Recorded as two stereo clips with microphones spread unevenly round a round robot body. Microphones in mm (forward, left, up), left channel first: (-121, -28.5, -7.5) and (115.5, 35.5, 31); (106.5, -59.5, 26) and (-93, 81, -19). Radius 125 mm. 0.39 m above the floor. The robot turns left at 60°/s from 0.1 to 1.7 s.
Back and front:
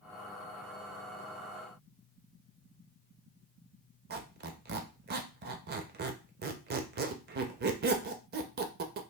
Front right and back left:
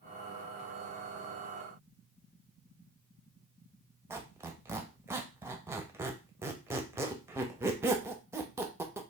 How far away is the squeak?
About 0.5 m.